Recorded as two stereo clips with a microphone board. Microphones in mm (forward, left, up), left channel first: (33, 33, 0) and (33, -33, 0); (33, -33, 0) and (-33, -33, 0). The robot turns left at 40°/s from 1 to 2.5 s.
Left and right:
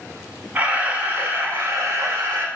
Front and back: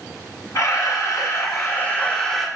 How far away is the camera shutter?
About 0.8 m.